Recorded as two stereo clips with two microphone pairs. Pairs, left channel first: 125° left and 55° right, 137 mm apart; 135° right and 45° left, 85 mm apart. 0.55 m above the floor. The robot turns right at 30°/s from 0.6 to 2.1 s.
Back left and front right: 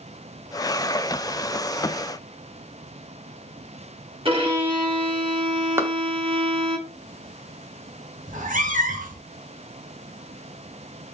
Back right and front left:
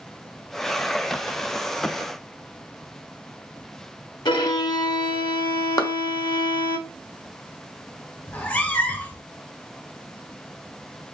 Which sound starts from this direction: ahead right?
A cat meowing, at 8.3 s.